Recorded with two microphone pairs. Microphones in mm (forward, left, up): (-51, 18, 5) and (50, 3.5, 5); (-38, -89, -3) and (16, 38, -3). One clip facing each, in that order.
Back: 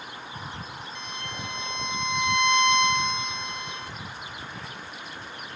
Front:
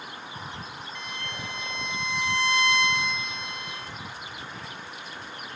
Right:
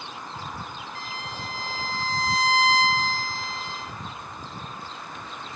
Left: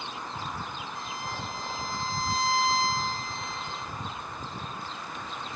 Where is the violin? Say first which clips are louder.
Even, left 1 dB; 120° right, 1.5 m.